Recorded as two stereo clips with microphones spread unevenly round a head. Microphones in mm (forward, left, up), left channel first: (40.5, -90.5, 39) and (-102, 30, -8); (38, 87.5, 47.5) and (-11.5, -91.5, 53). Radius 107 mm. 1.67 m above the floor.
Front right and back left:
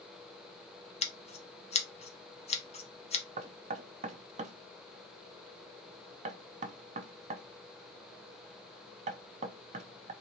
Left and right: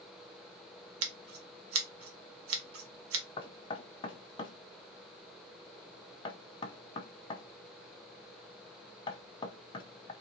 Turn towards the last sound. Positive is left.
turn(degrees=110)